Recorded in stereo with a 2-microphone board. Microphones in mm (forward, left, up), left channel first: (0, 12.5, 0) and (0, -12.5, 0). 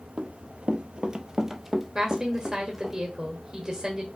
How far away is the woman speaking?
About 1.0 m.